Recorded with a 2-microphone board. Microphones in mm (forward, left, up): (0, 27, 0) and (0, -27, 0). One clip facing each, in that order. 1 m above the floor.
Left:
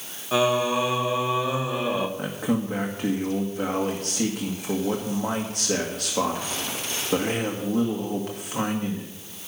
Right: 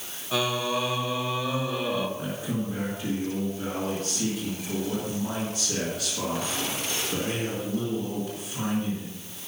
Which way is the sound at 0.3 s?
20° left (ahead or behind).